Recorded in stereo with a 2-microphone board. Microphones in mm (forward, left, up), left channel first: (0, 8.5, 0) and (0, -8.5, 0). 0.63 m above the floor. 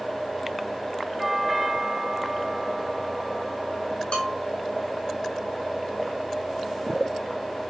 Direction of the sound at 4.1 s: 70° left (ahead or behind).